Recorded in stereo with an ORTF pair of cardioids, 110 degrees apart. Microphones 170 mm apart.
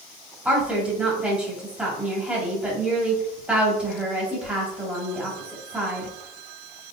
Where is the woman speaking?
5° right, 1.7 m.